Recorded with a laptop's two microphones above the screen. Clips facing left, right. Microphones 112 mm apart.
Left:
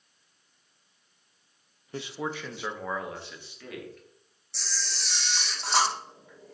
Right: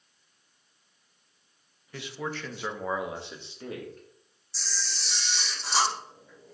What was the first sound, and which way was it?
A man speaking, 30° left (ahead or behind).